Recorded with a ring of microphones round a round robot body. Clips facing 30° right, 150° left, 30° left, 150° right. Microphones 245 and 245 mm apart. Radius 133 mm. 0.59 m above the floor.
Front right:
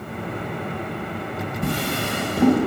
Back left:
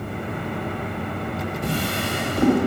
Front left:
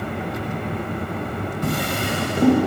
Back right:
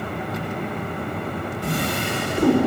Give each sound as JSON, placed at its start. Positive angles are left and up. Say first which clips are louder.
{"t": 1.6, "sound": "a drawer", "louder": "front right 2 dB, front left 1 dB", "azimuth_deg": -20, "distance_m": 2.0}